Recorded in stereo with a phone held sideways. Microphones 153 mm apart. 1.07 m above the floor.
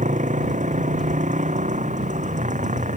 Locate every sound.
0.0 s a motorcycle: 55° right (ahead or behind)